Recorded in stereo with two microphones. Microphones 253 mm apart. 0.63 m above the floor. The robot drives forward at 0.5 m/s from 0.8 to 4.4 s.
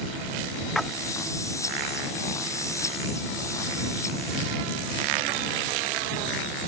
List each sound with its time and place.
0.8 s a splash: centre (ahead or behind)